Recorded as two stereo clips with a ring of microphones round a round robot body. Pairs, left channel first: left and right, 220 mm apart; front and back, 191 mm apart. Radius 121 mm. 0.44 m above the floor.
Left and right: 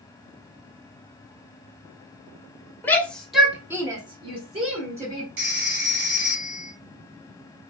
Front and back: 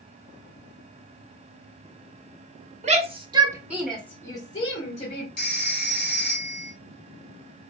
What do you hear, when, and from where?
2.8 s a shout: 165° left, 1.3 m; by 5.3 s 40° right, 1.7 m
5.4 s a phone ringing: 50° right, 2 m